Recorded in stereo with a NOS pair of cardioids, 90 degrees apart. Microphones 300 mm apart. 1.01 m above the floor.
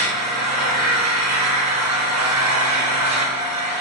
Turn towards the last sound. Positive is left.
turn(degrees=-55)